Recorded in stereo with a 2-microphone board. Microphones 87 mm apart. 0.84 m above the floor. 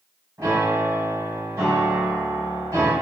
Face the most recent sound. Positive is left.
turn(degrees=-40)  # may be behind; listen again after turning